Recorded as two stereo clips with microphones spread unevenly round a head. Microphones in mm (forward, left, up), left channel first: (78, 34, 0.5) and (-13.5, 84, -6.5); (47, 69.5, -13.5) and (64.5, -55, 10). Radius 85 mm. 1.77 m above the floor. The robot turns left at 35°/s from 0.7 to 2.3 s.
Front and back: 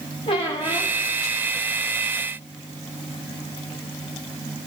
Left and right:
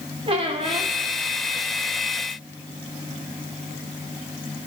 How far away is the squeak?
About 2 m.